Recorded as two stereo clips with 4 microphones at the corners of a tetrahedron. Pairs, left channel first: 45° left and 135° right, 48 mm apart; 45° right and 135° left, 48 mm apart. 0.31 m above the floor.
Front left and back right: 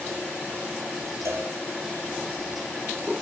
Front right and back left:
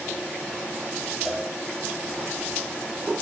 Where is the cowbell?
135° right, 5 m.